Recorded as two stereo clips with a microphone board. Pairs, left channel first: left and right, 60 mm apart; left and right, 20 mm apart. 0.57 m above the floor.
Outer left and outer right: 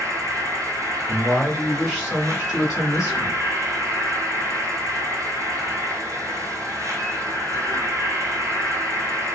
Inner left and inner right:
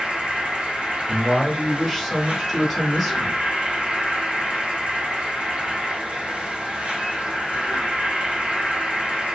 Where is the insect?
70° right (ahead or behind), 1.5 m.